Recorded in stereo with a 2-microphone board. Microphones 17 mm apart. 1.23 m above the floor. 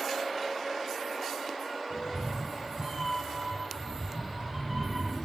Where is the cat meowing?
55° right (ahead or behind), 1.9 m; by 5.3 s 5° right (ahead or behind), 2.0 m.